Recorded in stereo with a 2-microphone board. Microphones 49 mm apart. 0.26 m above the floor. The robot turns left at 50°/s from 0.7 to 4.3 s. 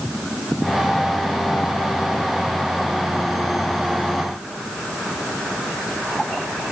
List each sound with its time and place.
Only background noise.